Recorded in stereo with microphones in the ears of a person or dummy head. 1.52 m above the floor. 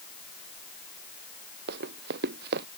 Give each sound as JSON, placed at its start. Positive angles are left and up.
{"t": 1.7, "sound": "running footsteps", "side_deg": -50}